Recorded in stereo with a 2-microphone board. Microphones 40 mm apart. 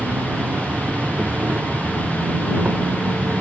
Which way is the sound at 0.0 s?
45° right (ahead or behind).